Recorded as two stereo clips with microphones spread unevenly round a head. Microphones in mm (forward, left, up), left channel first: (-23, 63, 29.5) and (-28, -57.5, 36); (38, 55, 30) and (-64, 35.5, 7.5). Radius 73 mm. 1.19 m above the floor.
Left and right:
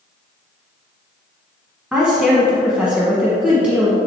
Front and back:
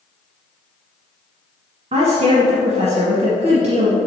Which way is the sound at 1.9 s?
175° right.